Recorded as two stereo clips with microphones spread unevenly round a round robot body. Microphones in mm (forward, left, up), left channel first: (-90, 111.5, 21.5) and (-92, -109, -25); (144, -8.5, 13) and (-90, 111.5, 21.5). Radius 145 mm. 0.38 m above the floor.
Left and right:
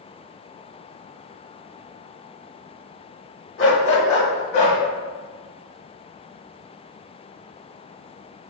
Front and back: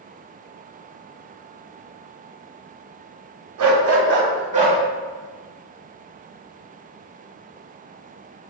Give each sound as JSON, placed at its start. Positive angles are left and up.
{"t": 3.6, "sound": "a dog barking", "azimuth_deg": 125, "distance_m": 0.8}